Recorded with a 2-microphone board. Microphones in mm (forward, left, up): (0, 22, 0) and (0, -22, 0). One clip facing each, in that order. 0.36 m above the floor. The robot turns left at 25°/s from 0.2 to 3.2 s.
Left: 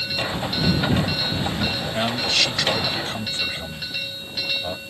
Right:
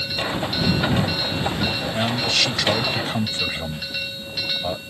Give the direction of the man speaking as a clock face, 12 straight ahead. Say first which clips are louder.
Even; 12 o'clock.